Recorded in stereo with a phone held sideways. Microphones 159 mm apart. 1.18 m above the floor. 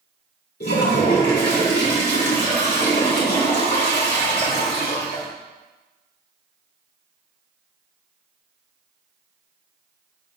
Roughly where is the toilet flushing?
Left.